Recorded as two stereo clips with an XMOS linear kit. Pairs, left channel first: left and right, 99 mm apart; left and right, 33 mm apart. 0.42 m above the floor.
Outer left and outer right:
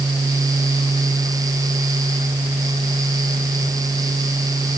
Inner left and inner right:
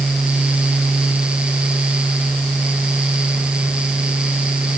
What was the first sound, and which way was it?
Only background noise.